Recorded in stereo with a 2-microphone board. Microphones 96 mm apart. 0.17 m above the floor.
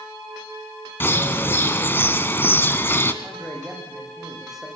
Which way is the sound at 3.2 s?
5° right (ahead or behind).